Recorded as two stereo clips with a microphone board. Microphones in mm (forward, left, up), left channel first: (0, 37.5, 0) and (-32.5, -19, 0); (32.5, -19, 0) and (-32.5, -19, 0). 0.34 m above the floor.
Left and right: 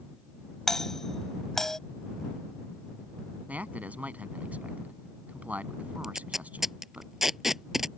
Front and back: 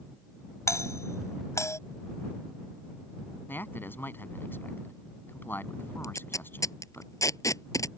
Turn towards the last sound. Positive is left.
turn(degrees=-35)